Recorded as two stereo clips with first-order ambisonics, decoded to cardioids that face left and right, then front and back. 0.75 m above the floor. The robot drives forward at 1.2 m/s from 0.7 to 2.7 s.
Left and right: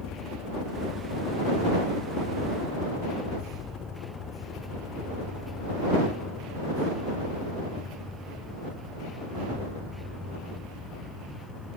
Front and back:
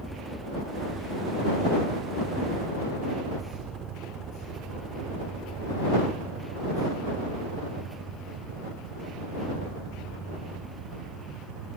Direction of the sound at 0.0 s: 90° left.